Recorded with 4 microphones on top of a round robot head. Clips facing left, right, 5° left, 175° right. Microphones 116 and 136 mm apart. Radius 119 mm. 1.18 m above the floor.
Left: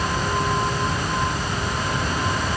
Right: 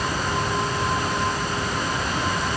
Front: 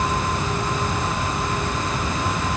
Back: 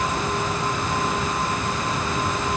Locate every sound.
Only background noise.